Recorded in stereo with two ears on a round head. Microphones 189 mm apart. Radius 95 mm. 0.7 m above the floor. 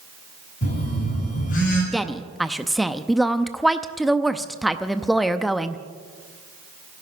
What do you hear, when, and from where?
0.6 s a phone buzzing: 40° left (ahead or behind), 8 m
1.9 s a woman speaking: centre (ahead or behind), 0.6 m